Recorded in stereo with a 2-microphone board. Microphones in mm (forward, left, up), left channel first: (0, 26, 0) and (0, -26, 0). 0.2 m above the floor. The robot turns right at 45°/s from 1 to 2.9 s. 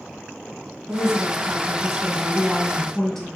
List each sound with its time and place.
0.9 s a woman speaking: 15° right (ahead or behind), 1.2 m; by 3.3 s 10° left (ahead or behind), 1.2 m